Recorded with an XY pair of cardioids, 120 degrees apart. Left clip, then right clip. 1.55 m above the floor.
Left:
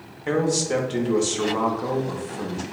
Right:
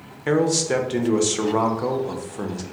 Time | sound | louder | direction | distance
0.3 | a man speaking | right 2 dB | 25° right | 0.5 m